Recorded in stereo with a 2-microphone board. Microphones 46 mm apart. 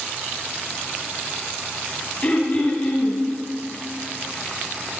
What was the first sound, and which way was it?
Throat clearing, 35° left (ahead or behind).